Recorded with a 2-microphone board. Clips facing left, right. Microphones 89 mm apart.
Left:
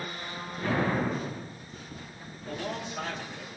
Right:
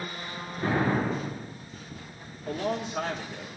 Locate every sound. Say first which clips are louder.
0.6 s an explosion: right 2 dB; 40° right (ahead or behind), 9 m
2.5 s a man speaking: right 5 dB; 55° right (ahead or behind), 3.5 m